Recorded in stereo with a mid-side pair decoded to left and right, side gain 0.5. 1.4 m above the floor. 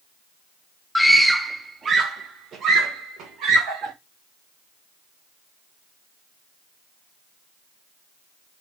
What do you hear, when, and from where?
0.9 s a scream: 15° left, 0.7 m; by 3.9 s 75° right, 1.9 m